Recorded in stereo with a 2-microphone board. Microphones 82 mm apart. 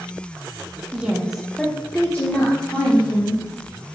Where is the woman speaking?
15° right (ahead or behind), 0.7 m; by 3.4 s 30° left (ahead or behind), 1.5 m.